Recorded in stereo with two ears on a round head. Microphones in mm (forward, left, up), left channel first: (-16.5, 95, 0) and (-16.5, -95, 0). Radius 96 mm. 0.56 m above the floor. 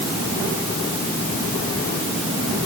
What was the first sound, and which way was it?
Only background noise.